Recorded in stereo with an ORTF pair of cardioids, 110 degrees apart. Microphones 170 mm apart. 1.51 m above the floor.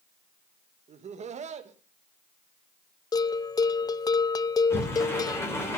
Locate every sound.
0.9 s laughter: 40° right, 2.5 m
3.1 s a bell: 20° left, 0.7 m
4.7 s a sliding door: 15° left, 5.5 m